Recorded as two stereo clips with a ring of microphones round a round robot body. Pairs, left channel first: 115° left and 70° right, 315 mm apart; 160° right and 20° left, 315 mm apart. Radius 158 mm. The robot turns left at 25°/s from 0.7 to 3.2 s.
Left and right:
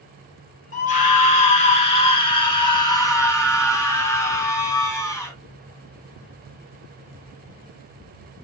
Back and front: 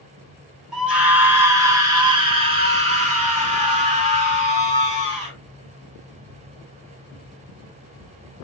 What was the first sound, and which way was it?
A scream, 110° left.